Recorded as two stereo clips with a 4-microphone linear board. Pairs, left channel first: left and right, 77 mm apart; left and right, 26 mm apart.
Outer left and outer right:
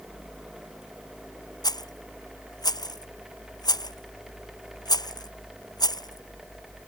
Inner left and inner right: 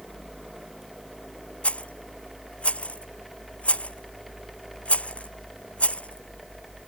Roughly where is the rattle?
Left.